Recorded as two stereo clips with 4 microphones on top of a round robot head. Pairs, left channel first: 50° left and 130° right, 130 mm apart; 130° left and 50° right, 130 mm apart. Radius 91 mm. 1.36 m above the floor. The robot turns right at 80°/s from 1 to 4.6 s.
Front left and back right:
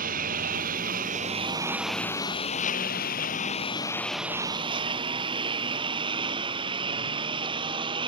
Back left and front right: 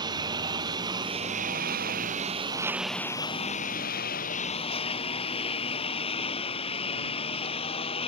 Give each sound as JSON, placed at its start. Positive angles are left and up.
{"t": 0.0, "sound": "a lawn mower", "azimuth_deg": -110}